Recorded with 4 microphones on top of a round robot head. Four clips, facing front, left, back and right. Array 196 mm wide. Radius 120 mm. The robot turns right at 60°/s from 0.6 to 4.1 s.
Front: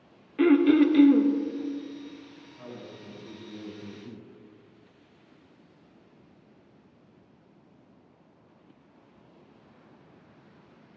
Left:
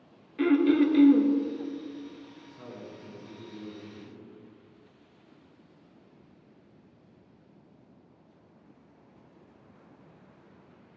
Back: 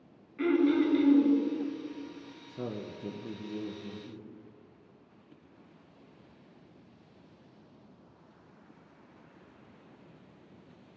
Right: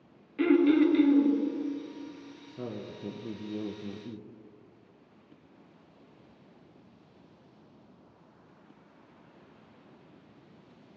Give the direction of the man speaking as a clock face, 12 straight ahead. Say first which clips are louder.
Right 6 dB, back 6 dB; 5 o'clock.